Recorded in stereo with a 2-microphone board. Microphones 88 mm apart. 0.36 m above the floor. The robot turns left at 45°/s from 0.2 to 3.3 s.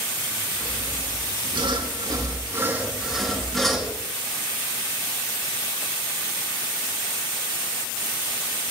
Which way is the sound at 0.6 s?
60° right (ahead or behind).